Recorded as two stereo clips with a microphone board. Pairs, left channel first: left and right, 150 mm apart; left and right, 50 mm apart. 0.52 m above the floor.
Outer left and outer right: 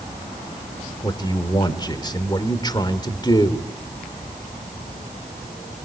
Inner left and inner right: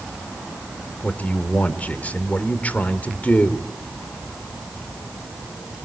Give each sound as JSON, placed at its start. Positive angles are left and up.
{"t": 1.0, "sound": "a man speaking", "side_deg": 30, "distance_m": 2.0}